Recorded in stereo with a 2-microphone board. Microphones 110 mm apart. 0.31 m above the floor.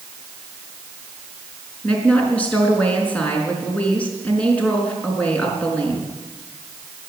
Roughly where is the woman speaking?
Centre.